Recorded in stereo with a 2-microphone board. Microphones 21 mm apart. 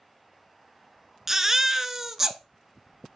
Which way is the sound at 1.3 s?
20° right (ahead or behind).